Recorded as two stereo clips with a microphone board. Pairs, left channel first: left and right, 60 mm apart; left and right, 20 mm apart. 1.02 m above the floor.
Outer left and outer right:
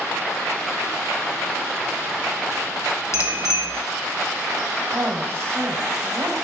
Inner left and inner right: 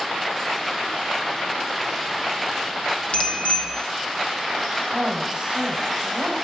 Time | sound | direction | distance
3.1 | a bicycle bell | 60° left (ahead or behind) | 3 m
4.9 | a woman speaking | 45° right (ahead or behind) | 4.5 m